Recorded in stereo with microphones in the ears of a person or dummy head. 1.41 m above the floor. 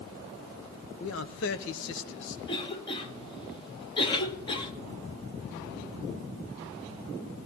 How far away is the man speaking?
About 1.1 m.